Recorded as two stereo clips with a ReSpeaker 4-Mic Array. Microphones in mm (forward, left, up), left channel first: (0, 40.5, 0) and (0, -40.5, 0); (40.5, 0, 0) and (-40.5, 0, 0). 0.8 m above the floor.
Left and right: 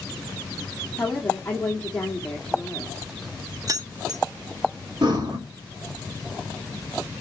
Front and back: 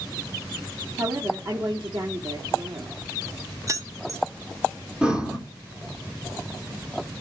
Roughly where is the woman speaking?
Behind.